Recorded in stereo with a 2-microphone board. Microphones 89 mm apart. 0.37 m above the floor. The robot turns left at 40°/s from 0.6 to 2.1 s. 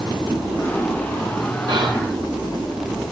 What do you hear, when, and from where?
1.7 s whispering: 55° right (ahead or behind), 4 m; by 2.1 s 40° right (ahead or behind), 4 m